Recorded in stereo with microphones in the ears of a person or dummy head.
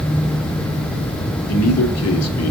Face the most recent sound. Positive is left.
turn(degrees=85)